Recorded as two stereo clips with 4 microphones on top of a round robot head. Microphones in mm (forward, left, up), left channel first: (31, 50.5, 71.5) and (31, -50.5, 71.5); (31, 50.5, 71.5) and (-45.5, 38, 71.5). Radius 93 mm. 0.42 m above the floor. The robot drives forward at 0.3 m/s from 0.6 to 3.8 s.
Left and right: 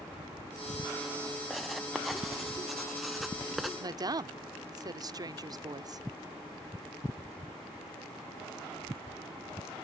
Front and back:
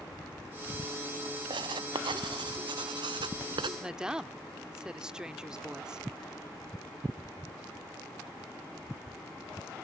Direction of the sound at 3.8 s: 95° right.